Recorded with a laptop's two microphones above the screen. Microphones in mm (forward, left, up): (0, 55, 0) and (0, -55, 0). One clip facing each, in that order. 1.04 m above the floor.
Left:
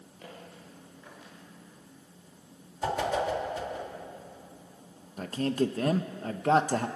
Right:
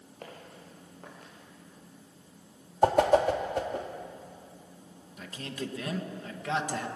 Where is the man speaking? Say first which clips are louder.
Left 10 dB; 45° left (ahead or behind), 1.1 m.